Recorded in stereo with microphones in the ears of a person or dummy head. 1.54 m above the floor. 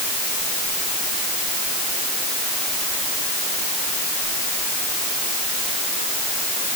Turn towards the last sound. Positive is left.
No sound to turn to.